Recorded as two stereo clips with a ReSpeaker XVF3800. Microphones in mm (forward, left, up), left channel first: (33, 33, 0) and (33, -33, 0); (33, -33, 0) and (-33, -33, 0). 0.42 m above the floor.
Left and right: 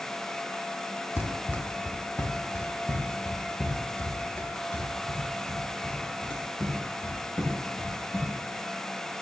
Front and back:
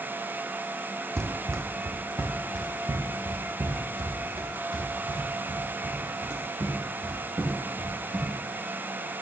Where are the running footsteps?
140° left, 1.0 m; by 8.3 s 160° left, 6 m.